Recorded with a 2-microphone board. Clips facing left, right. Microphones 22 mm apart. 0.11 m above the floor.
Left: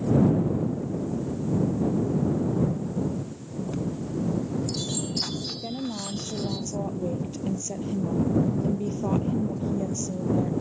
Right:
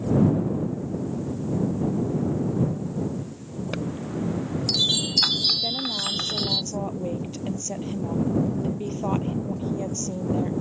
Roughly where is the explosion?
I don't hear an explosion.